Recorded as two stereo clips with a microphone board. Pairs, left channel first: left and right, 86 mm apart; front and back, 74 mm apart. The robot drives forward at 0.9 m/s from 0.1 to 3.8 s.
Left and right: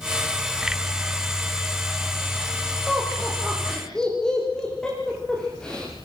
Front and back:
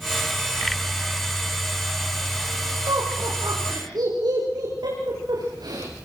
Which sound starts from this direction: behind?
Laughter, at 2.9 s.